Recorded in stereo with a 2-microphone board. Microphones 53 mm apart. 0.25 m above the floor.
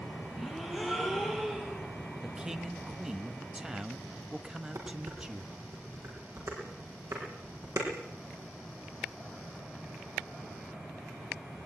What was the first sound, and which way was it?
A gasp, 5° right (ahead or behind).